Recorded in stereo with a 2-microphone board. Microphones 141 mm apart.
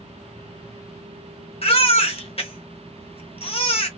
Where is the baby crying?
45° left (ahead or behind), 0.7 m.